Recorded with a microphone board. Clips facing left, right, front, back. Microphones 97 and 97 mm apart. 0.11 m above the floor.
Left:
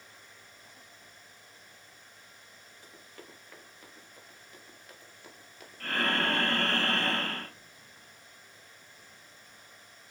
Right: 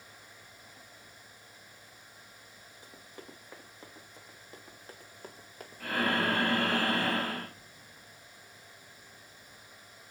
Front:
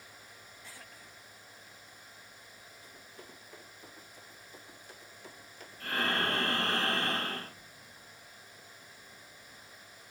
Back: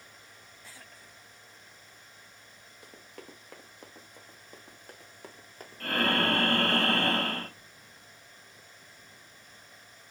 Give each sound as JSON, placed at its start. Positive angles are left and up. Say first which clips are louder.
{"t": 2.8, "sound": "running footsteps", "louder": "right 2 dB, back 5 dB", "azimuth_deg": -165, "distance_m": 4.5}
{"t": 5.8, "sound": "breathing", "louder": "right 1 dB, back 4 dB", "azimuth_deg": -170, "distance_m": 1.9}